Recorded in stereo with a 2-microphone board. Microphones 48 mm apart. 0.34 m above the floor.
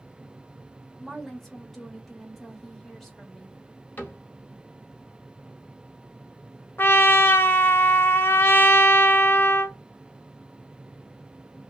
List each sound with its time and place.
1.0 s a woman speaking: 5° left (ahead or behind), 1.0 m
4.0 s a cupboard door: 45° left (ahead or behind), 0.9 m
6.8 s a trumpet: 55° left (ahead or behind), 0.5 m